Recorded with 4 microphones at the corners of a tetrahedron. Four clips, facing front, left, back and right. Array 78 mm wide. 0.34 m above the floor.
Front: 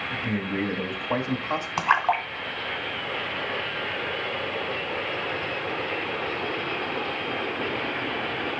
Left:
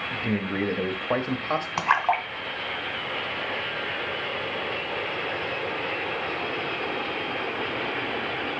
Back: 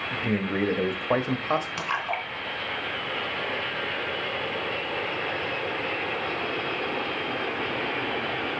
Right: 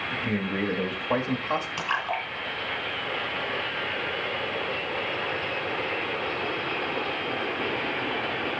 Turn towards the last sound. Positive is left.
turn(degrees=50)